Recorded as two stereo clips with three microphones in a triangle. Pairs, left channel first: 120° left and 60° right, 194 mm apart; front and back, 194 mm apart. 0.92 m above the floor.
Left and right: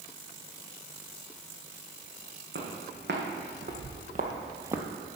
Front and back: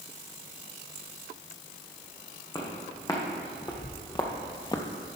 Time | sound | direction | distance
2.5 | footsteps | 70° right | 3 m